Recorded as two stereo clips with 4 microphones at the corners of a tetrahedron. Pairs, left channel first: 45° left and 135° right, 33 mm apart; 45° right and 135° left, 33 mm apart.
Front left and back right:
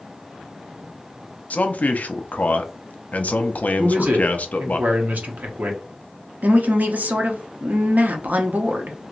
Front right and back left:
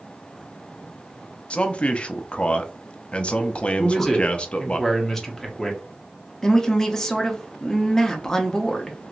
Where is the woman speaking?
120° right, 0.8 m.